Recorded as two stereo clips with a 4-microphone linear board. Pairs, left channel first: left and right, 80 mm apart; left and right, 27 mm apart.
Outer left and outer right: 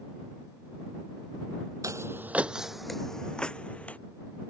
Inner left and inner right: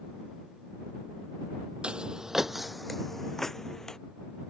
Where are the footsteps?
45° right (ahead or behind); by 4.0 s 15° left (ahead or behind).